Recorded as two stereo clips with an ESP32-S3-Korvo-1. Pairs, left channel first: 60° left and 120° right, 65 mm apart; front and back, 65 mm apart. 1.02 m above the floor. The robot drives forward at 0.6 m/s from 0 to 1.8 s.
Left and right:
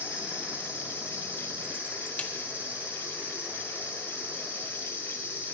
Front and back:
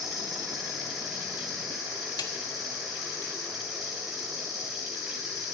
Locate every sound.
0.0 s an insect: 175° left, 4.5 m
2.2 s a snare drum: 10° right, 1.4 m